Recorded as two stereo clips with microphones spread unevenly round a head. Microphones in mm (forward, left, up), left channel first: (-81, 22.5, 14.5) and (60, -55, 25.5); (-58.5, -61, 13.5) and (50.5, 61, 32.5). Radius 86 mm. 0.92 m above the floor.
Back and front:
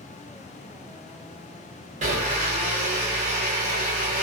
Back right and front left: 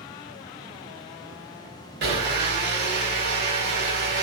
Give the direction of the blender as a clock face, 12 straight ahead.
11 o'clock.